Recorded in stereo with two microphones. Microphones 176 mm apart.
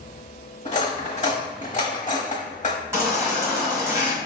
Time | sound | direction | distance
0.7 | cutlery clinking | 45° left (ahead or behind) | 0.9 m
2.9 | a baby crying | 15° right (ahead or behind) | 1.5 m